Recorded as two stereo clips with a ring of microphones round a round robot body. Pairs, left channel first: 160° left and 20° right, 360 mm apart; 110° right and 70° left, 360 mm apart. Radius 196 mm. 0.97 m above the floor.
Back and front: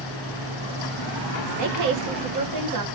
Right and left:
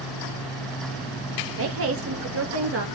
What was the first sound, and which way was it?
A woman speaking, 15° left.